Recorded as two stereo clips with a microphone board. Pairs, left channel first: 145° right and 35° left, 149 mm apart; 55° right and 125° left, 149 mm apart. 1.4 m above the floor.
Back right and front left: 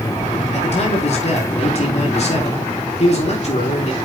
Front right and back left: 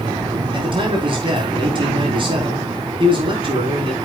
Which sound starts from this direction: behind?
A man speaking, at 0.5 s.